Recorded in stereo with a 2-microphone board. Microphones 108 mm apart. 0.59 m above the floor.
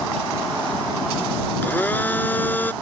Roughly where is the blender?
Centre.